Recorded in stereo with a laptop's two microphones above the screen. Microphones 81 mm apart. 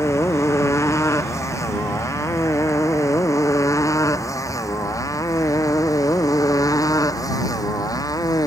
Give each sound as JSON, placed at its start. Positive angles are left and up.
{"t": 0.0, "sound": "a motorcycle", "side_deg": 35}